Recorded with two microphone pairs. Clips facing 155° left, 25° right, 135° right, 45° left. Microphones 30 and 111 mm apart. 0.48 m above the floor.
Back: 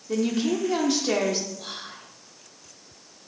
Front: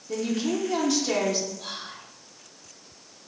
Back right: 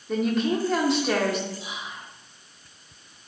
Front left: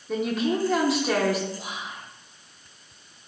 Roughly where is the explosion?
No explosion in this recording.